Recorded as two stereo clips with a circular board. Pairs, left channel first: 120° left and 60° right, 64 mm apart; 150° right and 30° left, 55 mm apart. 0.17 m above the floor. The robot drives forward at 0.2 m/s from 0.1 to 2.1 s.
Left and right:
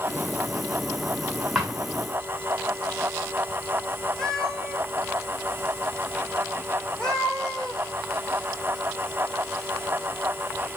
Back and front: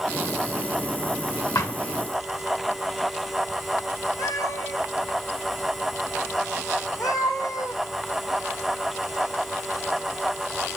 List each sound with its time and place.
1.6 s a thud: 140° right, 2.5 m
4.2 s a cat meowing: 160° right, 2 m